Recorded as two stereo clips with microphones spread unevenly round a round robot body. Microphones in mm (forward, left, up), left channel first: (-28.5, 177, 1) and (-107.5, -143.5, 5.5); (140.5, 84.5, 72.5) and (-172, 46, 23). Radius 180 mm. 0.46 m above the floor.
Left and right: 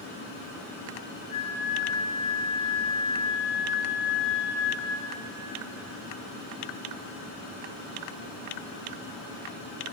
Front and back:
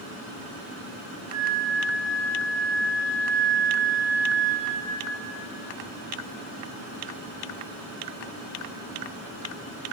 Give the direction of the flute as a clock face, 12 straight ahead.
11 o'clock.